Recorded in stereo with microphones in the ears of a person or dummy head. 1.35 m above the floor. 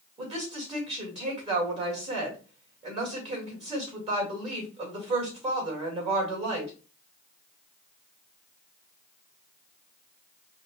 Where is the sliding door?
I don't hear a sliding door.